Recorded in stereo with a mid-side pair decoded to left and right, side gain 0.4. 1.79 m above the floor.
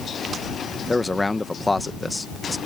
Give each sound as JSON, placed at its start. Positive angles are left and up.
{"t": 0.9, "sound": "a man speaking", "azimuth_deg": 20}